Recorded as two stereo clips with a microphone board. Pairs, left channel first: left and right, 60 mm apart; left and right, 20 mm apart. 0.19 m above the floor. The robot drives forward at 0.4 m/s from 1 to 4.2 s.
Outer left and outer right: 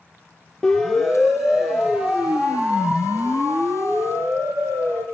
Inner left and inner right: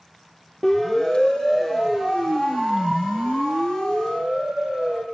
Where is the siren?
10° left (ahead or behind), 4 m; by 5.0 s 40° right (ahead or behind), 7 m.